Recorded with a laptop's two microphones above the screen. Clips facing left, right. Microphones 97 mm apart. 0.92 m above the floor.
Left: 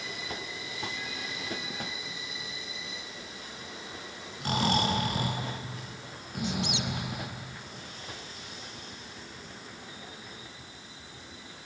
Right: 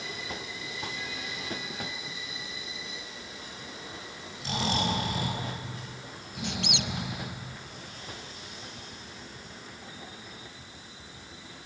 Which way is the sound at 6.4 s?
65° right (ahead or behind).